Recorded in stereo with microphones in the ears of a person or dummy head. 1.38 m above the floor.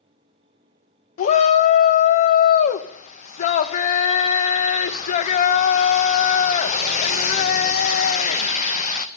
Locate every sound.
1.2 s a shout: 45° left (ahead or behind), 0.9 m